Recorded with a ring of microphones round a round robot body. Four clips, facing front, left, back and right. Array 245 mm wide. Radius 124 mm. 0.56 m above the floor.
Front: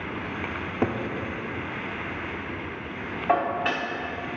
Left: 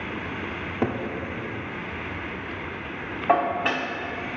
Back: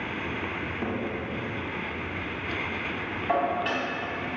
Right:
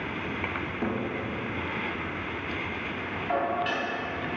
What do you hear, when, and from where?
0.8 s a cupboard door: 40° left, 0.8 m
3.3 s dishes clattering: 65° left, 1.0 m